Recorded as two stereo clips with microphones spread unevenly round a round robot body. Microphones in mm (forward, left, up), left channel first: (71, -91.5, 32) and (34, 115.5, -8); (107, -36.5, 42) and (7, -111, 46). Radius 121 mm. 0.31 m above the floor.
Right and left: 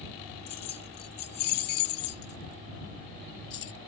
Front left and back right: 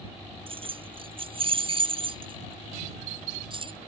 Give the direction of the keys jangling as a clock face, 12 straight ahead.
3 o'clock.